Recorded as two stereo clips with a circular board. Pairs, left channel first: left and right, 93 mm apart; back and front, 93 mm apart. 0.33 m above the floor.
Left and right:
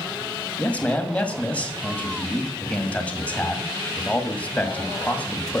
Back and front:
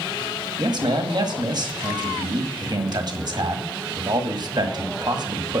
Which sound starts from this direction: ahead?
A man speaking, at 0.6 s.